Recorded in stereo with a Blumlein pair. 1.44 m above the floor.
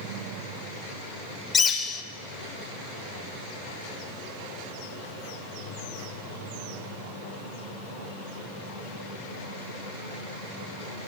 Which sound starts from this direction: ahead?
A bird, at 1.5 s.